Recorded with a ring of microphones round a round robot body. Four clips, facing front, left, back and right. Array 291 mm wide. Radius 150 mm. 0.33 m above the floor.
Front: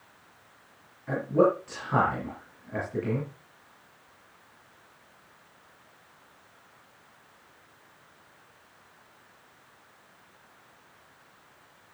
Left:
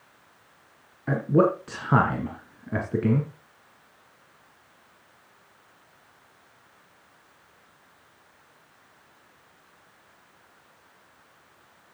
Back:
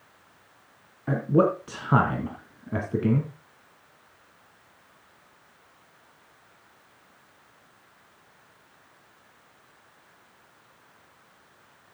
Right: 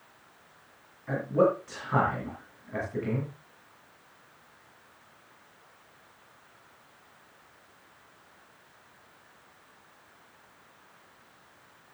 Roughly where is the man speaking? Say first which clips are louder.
Left 3 dB, back 1 dB; behind left.